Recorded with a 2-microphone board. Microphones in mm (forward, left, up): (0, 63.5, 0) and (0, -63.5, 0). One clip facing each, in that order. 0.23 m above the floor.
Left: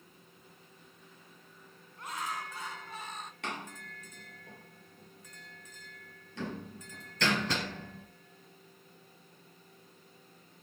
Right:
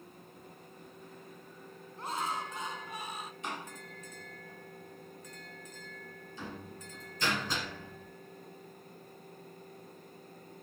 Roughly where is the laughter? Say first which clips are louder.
Right 3 dB; right.